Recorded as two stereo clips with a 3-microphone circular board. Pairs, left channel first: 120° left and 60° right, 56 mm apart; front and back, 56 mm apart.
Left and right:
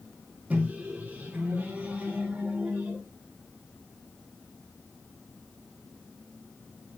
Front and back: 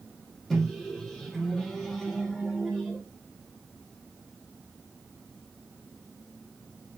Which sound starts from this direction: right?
A microwave, at 0.5 s.